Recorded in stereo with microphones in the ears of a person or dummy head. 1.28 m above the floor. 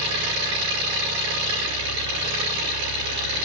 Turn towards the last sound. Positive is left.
turn(degrees=-20)  # may be behind; listen again after turning